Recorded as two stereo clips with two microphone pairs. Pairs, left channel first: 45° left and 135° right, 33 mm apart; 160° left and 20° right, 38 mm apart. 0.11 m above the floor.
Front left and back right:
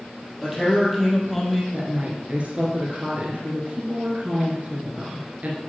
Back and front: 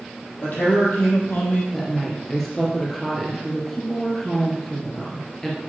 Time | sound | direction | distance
0.4 | a man speaking | 140° left | 4 m
1.7 | a woman speaking | 115° right | 2.5 m